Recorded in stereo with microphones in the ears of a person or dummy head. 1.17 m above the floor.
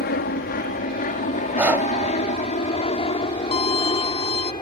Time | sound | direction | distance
0.0 | an aircraft | 45° left (ahead or behind) | ?
1.6 | breathing | 10° right (ahead or behind) | ?
3.5 | a violin | 30° left (ahead or behind) | ?